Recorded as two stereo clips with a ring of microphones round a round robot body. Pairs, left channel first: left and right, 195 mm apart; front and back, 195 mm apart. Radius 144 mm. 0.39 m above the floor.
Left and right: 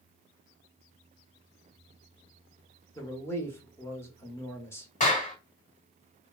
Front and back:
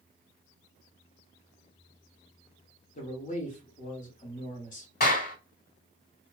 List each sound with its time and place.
3.0 s a man speaking: 20° left, 1.5 m
5.0 s a clap: 40° left, 1.5 m